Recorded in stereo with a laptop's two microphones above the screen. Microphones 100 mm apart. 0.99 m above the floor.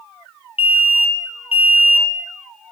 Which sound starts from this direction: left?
An alarm, at 0.6 s.